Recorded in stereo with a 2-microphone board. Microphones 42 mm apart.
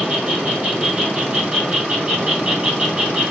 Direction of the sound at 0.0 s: 30° right (ahead or behind).